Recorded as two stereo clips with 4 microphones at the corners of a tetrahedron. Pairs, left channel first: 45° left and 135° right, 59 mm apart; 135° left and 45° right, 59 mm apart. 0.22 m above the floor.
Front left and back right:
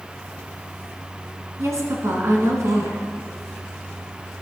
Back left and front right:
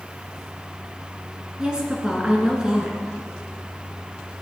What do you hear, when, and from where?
1.6 s a woman speaking: 120° right, 2.5 m